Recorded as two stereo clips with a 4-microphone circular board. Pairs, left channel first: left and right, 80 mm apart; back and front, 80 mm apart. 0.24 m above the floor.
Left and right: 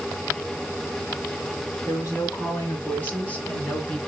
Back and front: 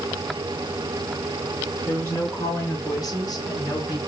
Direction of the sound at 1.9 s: 125° left.